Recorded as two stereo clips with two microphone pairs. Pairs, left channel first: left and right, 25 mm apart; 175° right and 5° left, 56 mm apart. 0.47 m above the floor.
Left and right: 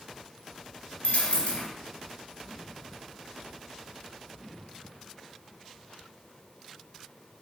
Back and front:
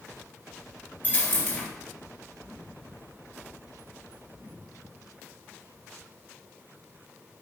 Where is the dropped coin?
125° left, 2.5 m.